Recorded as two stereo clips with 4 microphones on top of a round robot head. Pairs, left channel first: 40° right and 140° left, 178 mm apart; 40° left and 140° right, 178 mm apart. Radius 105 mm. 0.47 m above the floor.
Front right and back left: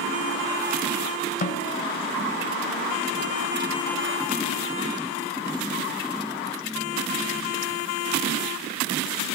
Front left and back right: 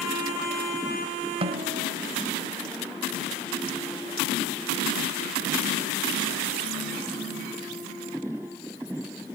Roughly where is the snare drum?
Right.